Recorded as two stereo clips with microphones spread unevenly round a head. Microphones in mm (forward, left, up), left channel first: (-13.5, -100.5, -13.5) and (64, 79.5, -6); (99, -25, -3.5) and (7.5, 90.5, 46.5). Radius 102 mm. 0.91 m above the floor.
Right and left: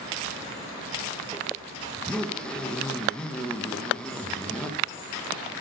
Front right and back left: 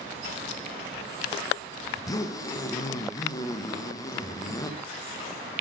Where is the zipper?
30° right, 0.6 m.